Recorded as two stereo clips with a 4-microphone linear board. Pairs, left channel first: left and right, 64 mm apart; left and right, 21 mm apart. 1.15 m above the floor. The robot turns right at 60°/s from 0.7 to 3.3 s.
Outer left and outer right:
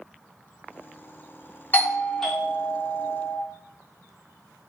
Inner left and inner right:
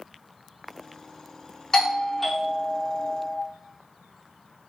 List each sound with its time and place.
1.7 s a doorbell: 145° left, 0.7 m; by 3.4 s 120° right, 0.7 m